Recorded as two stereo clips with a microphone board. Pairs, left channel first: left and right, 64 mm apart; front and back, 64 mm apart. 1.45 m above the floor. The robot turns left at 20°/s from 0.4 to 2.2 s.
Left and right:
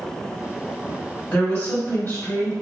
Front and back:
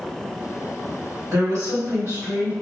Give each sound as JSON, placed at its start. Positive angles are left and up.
{"t": 1.3, "sound": "a woman speaking", "azimuth_deg": 155, "distance_m": 1.7}